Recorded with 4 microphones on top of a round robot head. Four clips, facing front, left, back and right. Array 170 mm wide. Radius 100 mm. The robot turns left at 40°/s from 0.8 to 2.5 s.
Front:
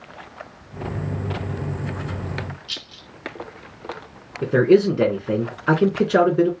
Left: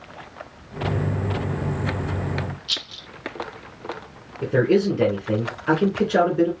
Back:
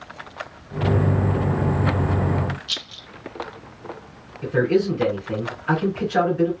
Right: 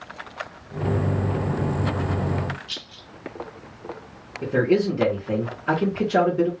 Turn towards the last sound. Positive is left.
turn(degrees=0)